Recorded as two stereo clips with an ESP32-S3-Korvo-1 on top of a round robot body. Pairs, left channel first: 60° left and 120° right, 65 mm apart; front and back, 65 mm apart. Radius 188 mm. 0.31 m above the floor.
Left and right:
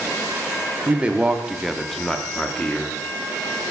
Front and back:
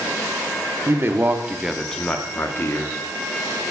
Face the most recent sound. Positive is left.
turn(degrees=-5)